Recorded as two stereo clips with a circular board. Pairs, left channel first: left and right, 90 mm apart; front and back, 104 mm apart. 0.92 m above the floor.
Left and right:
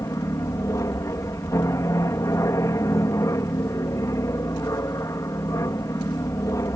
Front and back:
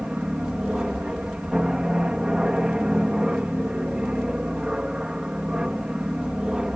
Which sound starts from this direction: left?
An aircraft, at 0.0 s.